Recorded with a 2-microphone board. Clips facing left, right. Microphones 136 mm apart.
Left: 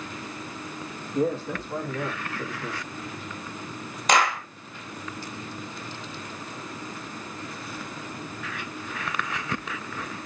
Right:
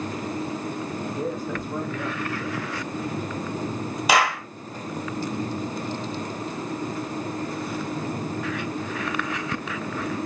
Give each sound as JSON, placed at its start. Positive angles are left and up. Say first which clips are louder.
{"t": 1.1, "sound": "a man speaking", "louder": "left 6 dB", "side_deg": 35, "distance_m": 4.5}
{"t": 4.1, "sound": "a clap", "louder": "right 1 dB", "side_deg": -5, "distance_m": 3.0}